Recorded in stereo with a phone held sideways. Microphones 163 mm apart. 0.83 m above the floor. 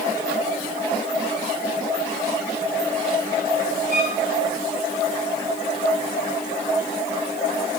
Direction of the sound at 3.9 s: 50° right (ahead or behind).